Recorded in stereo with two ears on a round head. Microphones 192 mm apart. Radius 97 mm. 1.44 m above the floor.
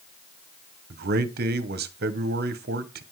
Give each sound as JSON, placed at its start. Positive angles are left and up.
{"t": 0.9, "sound": "a man speaking", "side_deg": -45, "distance_m": 1.0}